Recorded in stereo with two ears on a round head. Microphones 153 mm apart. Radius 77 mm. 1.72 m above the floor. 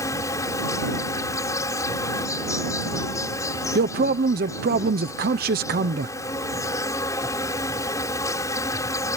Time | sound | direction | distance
0.0 | an insect | 20° left (ahead or behind) | ?
3.8 | a man speaking | 60° right (ahead or behind) | ?